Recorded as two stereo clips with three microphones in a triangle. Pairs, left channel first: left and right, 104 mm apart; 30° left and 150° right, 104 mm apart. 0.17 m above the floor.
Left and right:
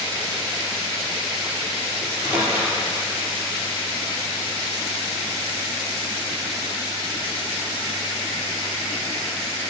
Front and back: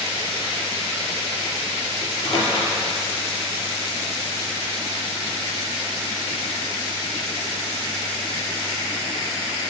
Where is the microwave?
20° right, 3.5 m.